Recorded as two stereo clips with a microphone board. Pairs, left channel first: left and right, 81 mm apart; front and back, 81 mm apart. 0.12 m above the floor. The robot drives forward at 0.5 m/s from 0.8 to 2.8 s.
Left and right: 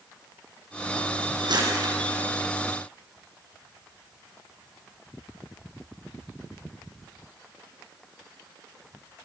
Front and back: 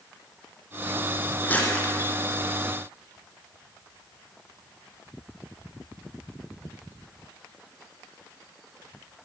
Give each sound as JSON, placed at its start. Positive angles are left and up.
{"t": 1.4, "sound": "crumpling", "azimuth_deg": -70, "distance_m": 5.5}